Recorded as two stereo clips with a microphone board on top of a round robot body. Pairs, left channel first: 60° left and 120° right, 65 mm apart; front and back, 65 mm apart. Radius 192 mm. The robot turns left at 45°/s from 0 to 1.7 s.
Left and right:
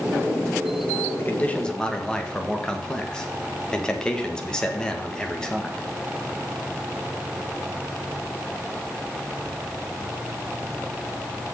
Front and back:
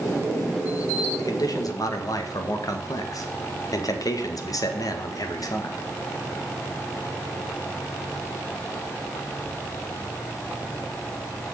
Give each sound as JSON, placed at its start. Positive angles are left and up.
{"t": 1.2, "sound": "a man speaking", "azimuth_deg": 10, "distance_m": 1.9}